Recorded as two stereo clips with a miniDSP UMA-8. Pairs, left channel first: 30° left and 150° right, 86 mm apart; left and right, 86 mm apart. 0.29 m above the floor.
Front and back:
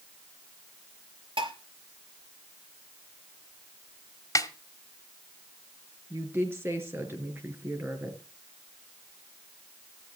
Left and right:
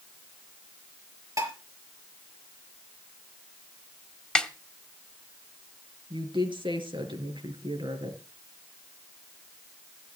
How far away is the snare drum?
About 1.4 m.